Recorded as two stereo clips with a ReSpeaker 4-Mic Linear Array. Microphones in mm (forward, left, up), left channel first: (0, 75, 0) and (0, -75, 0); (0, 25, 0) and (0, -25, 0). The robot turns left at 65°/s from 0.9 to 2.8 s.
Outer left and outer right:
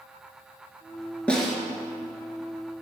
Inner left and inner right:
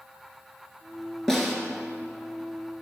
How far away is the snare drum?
About 1.4 m.